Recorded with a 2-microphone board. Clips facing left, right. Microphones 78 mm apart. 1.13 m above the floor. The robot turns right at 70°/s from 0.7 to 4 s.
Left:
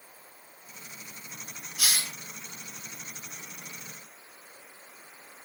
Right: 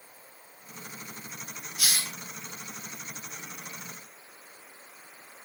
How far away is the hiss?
About 1.2 m.